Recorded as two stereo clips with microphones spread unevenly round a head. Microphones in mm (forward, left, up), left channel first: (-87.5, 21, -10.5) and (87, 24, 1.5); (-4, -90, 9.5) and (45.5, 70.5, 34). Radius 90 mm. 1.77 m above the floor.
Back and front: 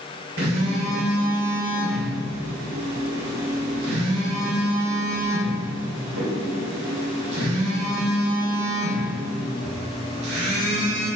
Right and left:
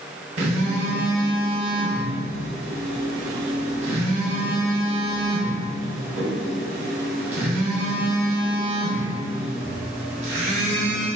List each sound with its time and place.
0.4 s a phone buzzing: 25° left, 3 m